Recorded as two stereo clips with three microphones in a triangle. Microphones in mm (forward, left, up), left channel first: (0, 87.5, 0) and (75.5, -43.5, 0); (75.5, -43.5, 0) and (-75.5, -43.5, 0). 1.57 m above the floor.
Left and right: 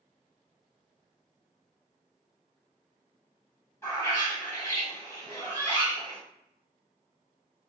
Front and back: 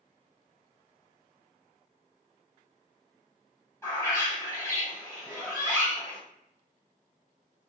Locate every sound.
3.8 s a bird: 60° left, 1.6 m